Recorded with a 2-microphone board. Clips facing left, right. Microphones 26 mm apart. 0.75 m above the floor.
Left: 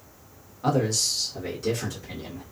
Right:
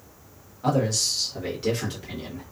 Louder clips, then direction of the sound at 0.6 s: Even; 15° left (ahead or behind).